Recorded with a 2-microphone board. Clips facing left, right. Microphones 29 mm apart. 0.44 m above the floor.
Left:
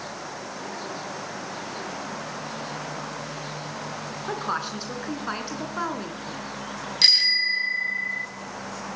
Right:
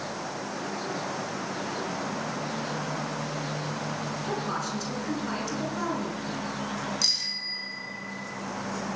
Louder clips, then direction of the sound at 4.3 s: Left 4 dB; 35° left (ahead or behind).